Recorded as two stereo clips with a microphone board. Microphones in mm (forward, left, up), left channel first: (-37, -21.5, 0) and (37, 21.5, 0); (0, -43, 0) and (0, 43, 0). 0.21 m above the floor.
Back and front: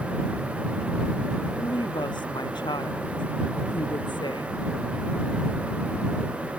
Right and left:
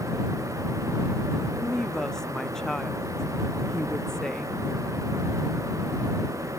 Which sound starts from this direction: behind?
A woman speaking, at 1.6 s.